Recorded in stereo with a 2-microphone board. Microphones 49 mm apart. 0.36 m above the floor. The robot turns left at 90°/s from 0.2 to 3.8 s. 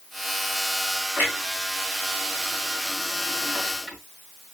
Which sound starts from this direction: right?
A clunk, at 1.2 s.